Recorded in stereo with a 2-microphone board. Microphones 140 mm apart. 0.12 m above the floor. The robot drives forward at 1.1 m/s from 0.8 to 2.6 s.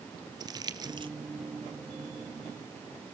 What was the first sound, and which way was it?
Crumpling, 30° right (ahead or behind).